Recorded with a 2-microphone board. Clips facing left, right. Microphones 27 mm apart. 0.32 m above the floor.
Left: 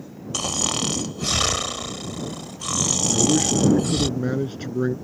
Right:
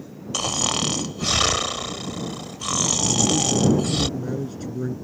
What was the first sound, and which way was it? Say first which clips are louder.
Snoring: right 1 dB; 10° right (ahead or behind).